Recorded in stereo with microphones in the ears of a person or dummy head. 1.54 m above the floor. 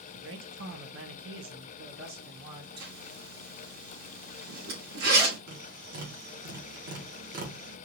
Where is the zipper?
75° right (ahead or behind), 2.5 m.